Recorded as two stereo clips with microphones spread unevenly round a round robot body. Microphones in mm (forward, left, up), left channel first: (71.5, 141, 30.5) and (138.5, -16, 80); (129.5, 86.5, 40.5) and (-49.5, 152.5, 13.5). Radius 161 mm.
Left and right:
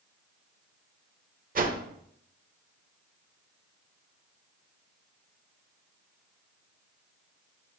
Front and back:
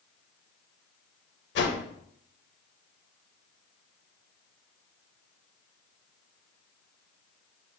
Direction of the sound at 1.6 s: 25° right.